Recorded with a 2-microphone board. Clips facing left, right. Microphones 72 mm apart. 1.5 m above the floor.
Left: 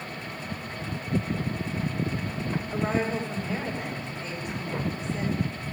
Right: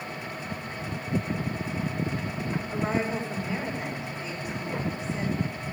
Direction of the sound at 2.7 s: 10° right (ahead or behind).